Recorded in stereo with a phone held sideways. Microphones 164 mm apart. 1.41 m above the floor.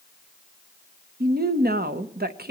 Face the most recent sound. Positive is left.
turn(degrees=-65)  # may be behind; listen again after turning